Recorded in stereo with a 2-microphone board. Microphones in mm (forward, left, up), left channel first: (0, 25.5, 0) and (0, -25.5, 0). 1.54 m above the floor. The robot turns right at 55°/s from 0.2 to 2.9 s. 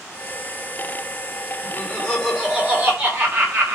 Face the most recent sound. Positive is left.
turn(degrees=-145)